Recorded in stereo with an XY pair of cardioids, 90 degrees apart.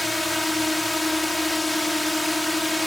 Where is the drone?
10° left.